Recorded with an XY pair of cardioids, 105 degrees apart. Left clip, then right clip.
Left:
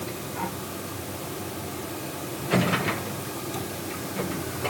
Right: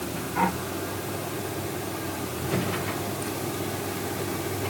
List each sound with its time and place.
Only background noise.